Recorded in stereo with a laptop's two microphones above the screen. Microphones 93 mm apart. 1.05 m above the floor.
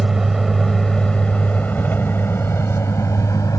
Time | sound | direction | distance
0.0 | a vehicle | 5° right (ahead or behind) | ?